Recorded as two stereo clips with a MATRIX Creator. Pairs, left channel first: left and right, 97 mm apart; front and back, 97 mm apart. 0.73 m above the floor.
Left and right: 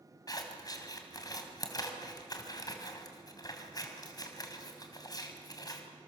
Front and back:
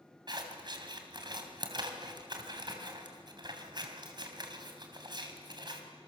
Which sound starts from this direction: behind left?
Scissors, at 0.3 s.